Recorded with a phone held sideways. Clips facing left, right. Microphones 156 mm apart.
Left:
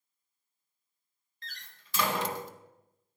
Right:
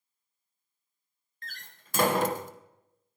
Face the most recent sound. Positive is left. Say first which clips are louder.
# right 3 dB
turn(degrees=-50)  # may be behind; listen again after turning